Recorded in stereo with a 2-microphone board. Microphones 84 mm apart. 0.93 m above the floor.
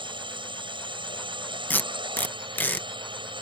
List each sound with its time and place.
0.0 s a drone: 75° right (ahead or behind)
1.7 s tape being pulled: 20° left (ahead or behind)